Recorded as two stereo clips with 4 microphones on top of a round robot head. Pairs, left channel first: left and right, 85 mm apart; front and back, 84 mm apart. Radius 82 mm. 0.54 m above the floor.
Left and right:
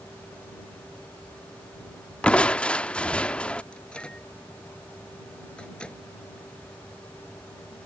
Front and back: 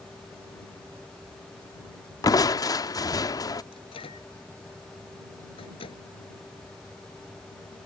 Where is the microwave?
10° left.